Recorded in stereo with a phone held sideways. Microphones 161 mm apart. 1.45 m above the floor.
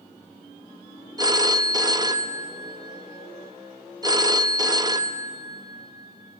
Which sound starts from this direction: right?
A phone ringing, at 1.2 s.